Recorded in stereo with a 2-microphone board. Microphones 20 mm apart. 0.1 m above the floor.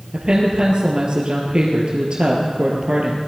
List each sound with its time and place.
0.1 s a woman speaking: 45° right (ahead or behind), 2 m